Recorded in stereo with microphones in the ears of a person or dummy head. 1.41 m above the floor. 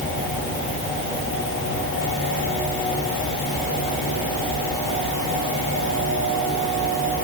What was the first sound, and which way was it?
Only background noise.